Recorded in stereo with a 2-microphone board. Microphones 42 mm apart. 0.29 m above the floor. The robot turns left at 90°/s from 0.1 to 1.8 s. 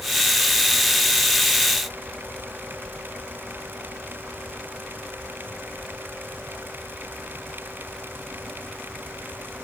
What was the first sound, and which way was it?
Only background noise.